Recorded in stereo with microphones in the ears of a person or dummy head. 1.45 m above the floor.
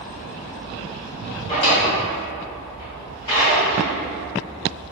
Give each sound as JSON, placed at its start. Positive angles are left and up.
{"t": 1.5, "sound": "a drawer", "side_deg": 25, "distance_m": 1.5}